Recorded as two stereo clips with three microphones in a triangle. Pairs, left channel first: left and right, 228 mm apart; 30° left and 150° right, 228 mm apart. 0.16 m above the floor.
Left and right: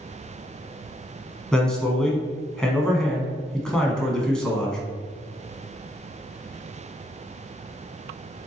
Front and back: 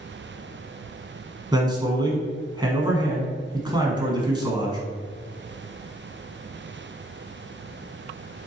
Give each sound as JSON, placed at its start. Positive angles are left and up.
{"t": 1.5, "sound": "a man speaking", "azimuth_deg": 175, "distance_m": 1.0}